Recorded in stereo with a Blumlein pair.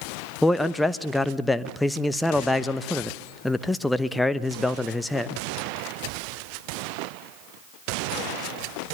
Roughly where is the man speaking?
Ahead.